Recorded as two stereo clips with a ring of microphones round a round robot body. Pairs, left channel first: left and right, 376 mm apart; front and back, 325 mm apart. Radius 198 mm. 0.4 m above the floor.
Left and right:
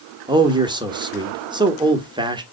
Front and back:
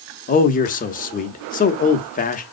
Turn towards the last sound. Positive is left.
turn(degrees=-25)